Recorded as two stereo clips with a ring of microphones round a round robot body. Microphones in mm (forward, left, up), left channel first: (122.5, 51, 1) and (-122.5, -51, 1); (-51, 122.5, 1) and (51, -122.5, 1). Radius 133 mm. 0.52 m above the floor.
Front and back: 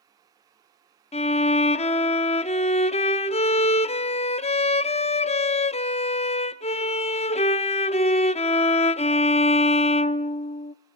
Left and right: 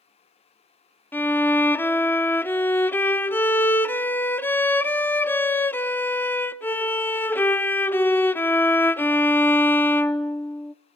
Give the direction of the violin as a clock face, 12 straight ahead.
11 o'clock.